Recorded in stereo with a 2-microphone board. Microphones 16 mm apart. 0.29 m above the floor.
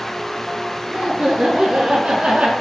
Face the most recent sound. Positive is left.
turn(degrees=-70)  # may be behind; listen again after turning